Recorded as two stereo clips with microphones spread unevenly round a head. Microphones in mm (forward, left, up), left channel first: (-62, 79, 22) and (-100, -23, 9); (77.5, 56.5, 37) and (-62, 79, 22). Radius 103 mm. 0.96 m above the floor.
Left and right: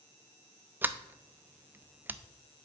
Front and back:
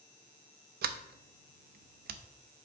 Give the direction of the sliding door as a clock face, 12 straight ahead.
6 o'clock.